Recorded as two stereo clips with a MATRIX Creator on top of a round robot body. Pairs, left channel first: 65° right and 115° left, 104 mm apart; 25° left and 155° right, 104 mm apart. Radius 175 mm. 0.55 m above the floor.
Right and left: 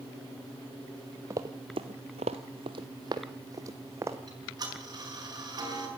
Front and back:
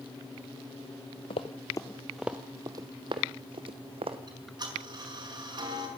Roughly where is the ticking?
Behind.